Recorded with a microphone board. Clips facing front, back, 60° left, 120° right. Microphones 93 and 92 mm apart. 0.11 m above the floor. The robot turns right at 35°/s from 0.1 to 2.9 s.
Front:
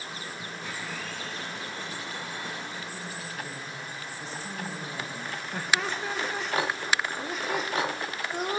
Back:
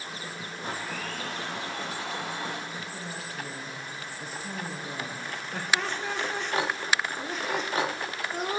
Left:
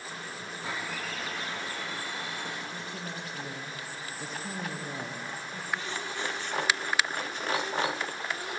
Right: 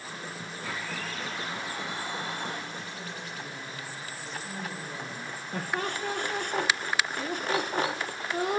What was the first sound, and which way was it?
A blender, 130° left.